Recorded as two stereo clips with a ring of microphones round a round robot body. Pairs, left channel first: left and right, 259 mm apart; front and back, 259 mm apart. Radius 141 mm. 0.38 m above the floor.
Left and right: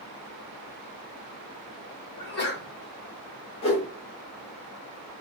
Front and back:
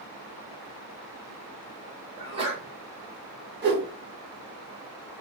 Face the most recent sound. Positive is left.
turn(degrees=145)